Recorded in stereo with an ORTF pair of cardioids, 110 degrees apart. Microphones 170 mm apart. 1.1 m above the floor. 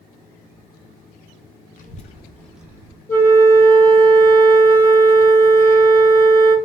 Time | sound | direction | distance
1.8 | a child speaking | 60° left | 0.7 m
3.1 | a flute | 15° left | 1.1 m